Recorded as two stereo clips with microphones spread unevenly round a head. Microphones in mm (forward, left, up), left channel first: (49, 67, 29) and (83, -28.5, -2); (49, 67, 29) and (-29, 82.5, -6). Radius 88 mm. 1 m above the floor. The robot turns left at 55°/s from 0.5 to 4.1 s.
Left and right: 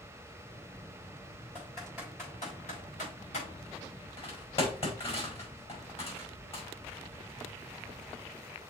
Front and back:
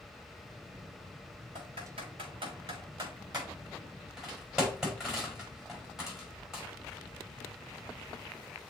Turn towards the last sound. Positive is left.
turn(degrees=85)